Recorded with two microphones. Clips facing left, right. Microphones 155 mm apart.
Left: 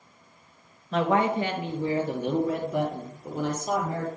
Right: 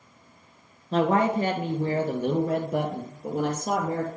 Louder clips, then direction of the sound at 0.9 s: Right 1 dB; 35° right (ahead or behind).